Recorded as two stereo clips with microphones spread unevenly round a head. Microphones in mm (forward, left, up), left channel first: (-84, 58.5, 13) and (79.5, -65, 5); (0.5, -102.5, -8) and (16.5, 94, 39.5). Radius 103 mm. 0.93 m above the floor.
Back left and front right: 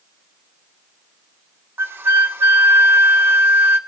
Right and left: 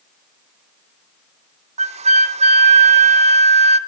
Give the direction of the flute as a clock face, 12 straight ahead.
11 o'clock.